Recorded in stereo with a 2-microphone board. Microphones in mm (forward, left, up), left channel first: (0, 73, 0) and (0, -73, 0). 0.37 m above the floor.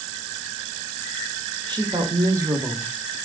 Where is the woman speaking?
30° right (ahead or behind), 1.4 m; by 3.2 s 5° right (ahead or behind), 1.2 m.